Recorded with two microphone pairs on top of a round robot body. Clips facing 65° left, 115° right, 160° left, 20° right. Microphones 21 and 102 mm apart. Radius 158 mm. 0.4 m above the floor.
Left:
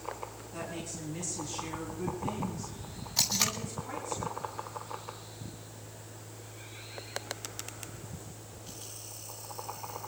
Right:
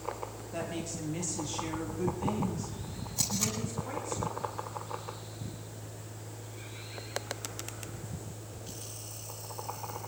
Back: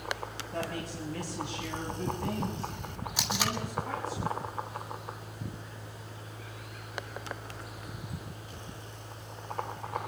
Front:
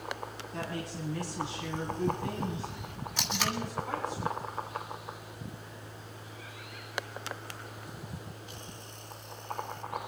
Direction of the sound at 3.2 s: 85° left.